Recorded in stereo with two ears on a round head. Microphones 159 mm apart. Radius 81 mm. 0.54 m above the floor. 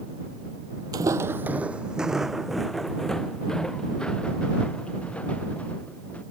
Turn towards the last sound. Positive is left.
turn(degrees=5)  # may be behind; listen again after turning